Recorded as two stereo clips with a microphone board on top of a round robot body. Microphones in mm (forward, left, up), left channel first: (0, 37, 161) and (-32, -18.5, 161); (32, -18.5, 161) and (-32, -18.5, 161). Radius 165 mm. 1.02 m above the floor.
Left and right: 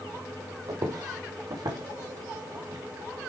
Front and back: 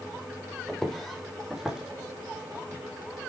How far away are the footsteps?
About 3 m.